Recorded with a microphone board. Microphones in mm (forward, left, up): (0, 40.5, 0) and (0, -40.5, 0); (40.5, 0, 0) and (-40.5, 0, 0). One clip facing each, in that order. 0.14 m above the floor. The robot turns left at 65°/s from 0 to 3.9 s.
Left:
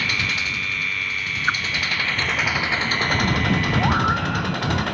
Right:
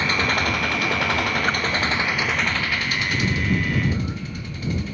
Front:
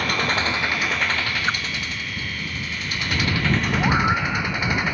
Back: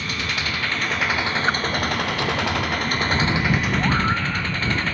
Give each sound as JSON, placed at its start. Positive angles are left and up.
{"t": 0.0, "sound": "an engine running", "azimuth_deg": -30}
{"t": 1.5, "sound": "a whoosh", "azimuth_deg": 135}
{"t": 3.8, "sound": "a scream", "azimuth_deg": 90}